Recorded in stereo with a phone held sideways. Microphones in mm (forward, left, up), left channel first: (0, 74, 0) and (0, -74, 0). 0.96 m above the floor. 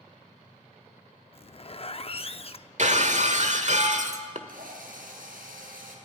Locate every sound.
1.3 s a zipper: 45° left (ahead or behind), 0.6 m
2.8 s breaking glass: 55° right (ahead or behind), 1.3 m
4.5 s a drill: 85° right, 4.5 m